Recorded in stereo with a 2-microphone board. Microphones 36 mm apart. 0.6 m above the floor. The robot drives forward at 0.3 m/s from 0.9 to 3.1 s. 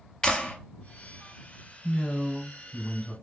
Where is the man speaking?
5° right (ahead or behind), 1.9 m; by 3.1 s 10° right (ahead or behind), 1.6 m.